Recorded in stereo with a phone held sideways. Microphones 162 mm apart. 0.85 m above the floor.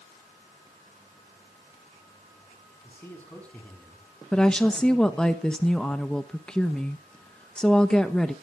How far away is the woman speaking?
About 0.9 m.